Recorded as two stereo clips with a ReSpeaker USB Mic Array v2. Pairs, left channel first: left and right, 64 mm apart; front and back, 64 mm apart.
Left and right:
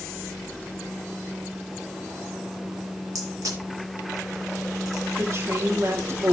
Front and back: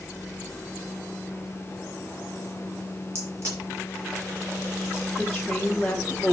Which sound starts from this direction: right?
A woman speaking, at 5.2 s.